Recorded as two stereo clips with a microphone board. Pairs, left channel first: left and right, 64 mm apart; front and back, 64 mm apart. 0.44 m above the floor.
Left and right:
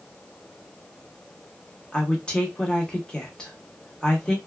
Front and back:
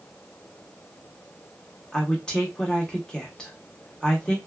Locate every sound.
1.9 s a woman speaking: 50° left, 0.7 m